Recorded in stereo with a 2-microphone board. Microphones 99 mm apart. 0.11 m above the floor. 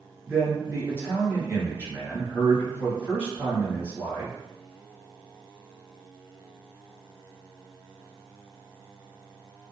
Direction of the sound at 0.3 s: 20° right (ahead or behind).